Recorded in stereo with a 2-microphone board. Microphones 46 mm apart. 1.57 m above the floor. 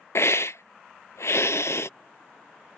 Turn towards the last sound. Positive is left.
turn(degrees=75)  # may be behind; listen again after turning